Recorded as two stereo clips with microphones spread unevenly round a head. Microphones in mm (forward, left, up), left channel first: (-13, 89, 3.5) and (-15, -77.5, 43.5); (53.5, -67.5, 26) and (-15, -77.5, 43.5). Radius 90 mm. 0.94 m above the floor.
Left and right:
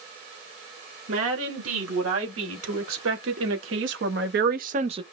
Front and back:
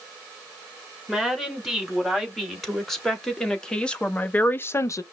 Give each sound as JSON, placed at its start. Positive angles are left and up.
{"t": 1.1, "sound": "a woman speaking", "azimuth_deg": -85, "distance_m": 3.0}